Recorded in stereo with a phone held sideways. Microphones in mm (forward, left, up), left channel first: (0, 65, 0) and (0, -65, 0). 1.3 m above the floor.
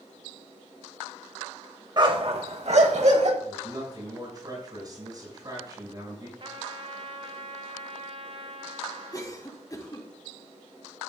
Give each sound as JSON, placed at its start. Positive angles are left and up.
{"t": 2.0, "sound": "a dog barking", "side_deg": -35, "distance_m": 1.5}
{"t": 3.4, "sound": "a man speaking", "side_deg": -30, "distance_m": 5.5}
{"t": 6.4, "sound": "a trumpet", "side_deg": -45, "distance_m": 1.3}
{"t": 9.1, "sound": "a cough", "side_deg": 25, "distance_m": 3.0}